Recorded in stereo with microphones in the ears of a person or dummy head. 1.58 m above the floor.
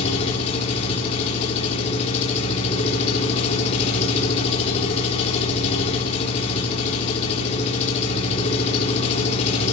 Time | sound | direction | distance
0.0 | an engine running | 35° left (ahead or behind) | 2.5 m